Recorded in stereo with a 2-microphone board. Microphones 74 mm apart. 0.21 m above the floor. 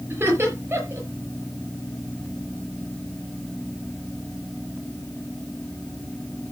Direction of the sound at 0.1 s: 35° right (ahead or behind).